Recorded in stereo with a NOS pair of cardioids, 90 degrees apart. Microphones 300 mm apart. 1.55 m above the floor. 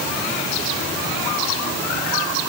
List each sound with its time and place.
Only background noise.